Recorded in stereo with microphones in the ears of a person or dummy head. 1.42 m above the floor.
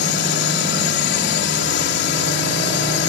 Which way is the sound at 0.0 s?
60° left (ahead or behind).